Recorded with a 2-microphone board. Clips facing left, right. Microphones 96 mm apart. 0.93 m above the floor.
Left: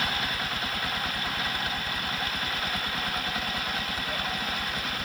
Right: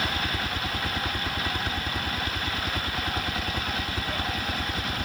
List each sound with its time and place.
0.0 s a helicopter: 60° right (ahead or behind)